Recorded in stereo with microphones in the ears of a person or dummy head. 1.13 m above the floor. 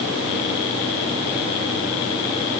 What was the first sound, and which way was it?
Only background noise.